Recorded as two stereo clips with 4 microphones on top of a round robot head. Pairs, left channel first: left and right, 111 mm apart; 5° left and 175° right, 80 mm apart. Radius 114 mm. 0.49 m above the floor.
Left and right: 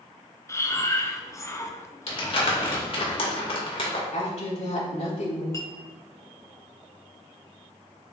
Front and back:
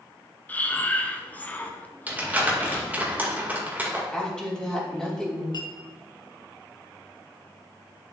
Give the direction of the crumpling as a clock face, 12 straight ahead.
8 o'clock.